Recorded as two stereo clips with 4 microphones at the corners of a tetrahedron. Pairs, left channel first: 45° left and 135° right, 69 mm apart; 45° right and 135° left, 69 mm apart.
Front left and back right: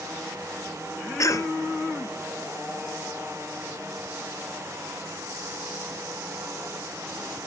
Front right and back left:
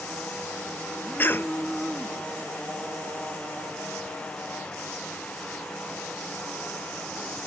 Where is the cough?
10° left.